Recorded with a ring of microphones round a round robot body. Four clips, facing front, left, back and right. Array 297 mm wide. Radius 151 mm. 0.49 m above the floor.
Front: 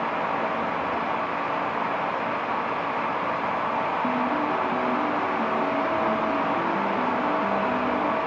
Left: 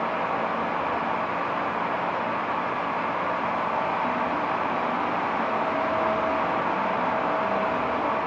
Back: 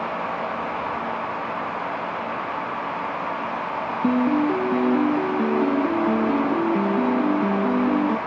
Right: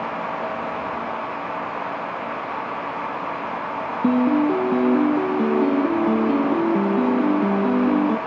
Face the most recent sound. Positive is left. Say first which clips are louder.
# right 8 dB, back 5 dB
turn(degrees=-120)